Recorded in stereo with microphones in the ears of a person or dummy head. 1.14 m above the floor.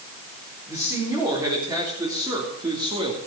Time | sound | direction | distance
0.7 | a man speaking | 10° right (ahead or behind) | 4 m